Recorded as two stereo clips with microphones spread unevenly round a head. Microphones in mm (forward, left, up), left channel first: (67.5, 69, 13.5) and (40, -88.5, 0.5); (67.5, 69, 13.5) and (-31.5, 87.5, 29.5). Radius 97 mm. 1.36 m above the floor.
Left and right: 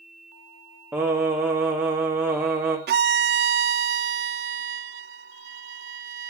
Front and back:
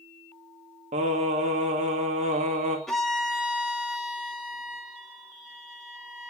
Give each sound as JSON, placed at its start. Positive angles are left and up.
{"t": 0.9, "sound": "singing", "azimuth_deg": 175, "distance_m": 2.5}
{"t": 2.9, "sound": "a violin", "azimuth_deg": -105, "distance_m": 0.6}